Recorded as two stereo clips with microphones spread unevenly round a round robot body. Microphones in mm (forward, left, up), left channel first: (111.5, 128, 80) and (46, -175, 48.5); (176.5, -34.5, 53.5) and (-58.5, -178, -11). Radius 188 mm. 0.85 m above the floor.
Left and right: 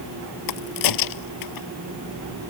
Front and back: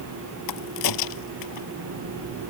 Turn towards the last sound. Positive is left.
turn(degrees=65)